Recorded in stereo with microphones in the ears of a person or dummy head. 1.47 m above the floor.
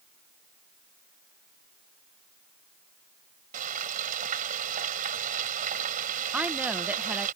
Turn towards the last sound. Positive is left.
turn(degrees=-5)  # may be behind; listen again after turning